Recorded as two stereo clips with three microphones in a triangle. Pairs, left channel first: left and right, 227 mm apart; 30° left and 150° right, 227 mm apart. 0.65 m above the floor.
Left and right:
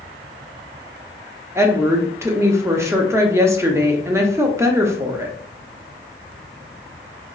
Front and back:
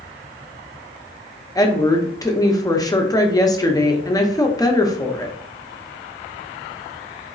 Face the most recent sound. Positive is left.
turn(degrees=-25)